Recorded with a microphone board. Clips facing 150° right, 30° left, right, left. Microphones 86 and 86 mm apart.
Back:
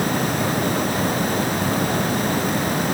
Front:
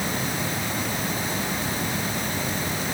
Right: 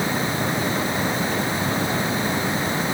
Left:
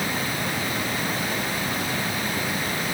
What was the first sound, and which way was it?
Only background noise.